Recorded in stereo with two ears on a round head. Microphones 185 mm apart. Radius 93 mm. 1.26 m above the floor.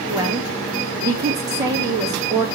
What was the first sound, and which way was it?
A woman speaking, 20° right (ahead or behind).